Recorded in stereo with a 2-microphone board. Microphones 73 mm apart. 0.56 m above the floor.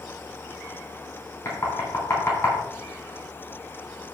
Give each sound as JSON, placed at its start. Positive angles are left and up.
{"t": 1.4, "sound": "knocking", "side_deg": 40, "distance_m": 3.0}